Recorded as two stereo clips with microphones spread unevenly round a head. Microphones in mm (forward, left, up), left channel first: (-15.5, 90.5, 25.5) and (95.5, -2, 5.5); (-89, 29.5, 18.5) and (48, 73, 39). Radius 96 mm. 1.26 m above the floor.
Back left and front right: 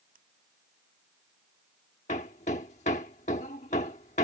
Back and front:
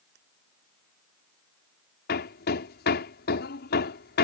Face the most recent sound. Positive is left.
turn(degrees=-165)